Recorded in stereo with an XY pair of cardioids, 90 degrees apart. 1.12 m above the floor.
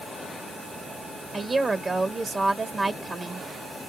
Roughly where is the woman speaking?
Ahead right.